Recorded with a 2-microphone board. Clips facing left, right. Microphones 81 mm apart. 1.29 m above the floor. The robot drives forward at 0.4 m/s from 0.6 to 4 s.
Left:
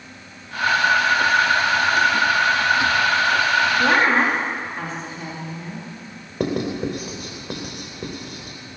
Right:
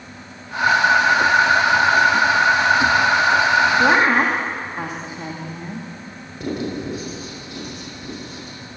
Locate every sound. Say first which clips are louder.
3.8 s a woman speaking: right 2 dB; 20° right (ahead or behind), 2.5 m
6.4 s writing: left 3 dB; 65° left (ahead or behind), 4 m